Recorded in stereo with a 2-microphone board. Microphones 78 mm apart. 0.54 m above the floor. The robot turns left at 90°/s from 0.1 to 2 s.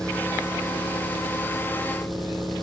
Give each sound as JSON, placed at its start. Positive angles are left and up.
{"t": 0.0, "sound": "an engine running", "azimuth_deg": 170, "distance_m": 8.0}